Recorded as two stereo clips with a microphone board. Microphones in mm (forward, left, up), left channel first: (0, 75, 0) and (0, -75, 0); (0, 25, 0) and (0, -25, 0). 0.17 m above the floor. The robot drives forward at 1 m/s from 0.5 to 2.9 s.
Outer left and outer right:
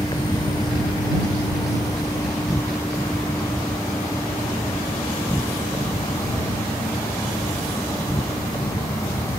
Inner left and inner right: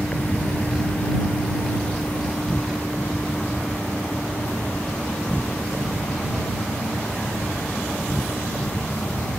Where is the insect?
25° left (ahead or behind); by 9.4 s 20° left (ahead or behind).